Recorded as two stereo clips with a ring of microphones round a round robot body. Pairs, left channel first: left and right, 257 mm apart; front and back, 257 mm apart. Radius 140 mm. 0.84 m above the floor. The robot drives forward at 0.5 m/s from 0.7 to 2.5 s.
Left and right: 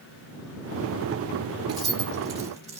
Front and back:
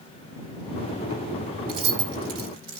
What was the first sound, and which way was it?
Keys jangling, 165° right.